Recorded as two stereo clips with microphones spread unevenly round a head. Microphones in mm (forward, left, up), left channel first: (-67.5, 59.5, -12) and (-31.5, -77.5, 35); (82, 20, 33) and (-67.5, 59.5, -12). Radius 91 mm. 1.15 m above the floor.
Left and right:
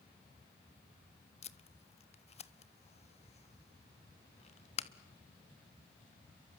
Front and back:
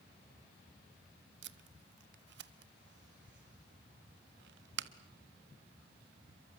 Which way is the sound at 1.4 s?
155° left.